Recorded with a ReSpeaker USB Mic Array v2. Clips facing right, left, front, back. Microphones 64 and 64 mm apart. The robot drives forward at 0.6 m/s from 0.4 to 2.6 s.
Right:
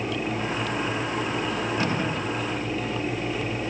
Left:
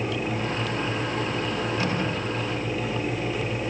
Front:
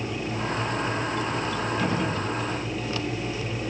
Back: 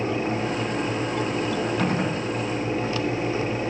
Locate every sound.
1.8 s a gunshot: 150° right, 6 m